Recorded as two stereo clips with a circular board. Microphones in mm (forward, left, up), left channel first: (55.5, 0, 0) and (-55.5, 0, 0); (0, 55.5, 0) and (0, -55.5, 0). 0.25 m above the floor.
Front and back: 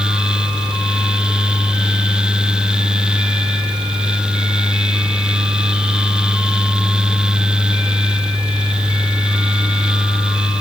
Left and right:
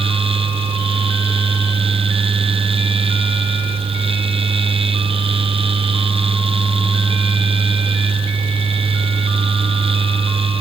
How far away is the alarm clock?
No alarm clock in this recording.